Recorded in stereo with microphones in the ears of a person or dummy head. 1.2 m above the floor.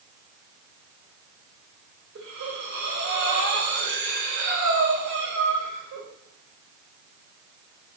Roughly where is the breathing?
Right.